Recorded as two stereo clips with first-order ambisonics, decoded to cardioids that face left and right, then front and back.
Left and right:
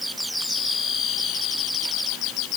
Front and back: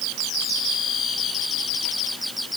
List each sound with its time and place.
Only background noise.